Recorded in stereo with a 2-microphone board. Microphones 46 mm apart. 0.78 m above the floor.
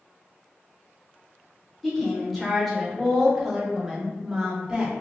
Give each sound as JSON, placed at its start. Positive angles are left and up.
{"t": 1.8, "sound": "a woman speaking", "side_deg": 5, "distance_m": 1.6}